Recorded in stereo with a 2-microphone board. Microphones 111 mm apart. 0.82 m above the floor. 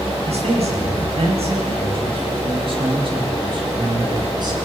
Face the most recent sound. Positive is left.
turn(degrees=-40)  # may be behind; listen again after turning